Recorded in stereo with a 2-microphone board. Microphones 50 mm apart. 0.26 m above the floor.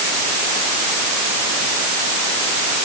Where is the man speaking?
No man speaking in this recording.